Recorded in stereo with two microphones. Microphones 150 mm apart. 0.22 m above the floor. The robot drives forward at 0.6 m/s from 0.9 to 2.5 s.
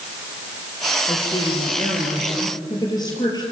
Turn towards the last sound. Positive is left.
turn(degrees=30)  # may be behind; listen again after turning